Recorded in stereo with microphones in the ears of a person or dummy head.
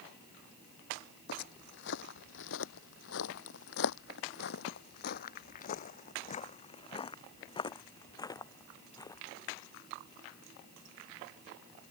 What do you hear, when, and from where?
1.3 s footsteps: 65° left (ahead or behind); by 9.2 s 15° left (ahead or behind)